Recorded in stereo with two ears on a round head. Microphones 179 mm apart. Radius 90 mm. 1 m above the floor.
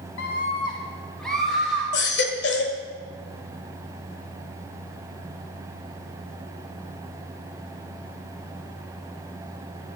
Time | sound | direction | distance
0.2 | a scream | 60° left (ahead or behind) | 0.7 m
1.9 | a baby crying | 60° left (ahead or behind) | 1.7 m